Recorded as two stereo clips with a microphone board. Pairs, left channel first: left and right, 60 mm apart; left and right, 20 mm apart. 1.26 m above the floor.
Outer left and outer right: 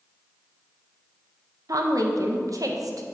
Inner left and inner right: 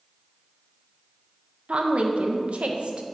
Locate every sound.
1.7 s a woman speaking: 75° right (ahead or behind), 0.7 m